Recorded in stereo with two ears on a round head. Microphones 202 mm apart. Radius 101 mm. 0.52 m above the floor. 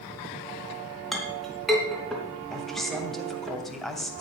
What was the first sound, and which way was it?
A clink, centre (ahead or behind).